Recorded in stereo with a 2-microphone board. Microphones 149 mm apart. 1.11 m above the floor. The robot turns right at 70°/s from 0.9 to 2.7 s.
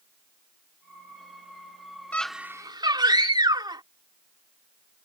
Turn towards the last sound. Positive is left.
turn(degrees=-150)